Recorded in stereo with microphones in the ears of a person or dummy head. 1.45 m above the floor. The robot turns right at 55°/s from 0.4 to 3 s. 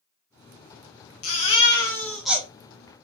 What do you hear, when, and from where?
1.2 s a baby crying: 130° left, 0.9 m; by 2.5 s 160° right, 0.9 m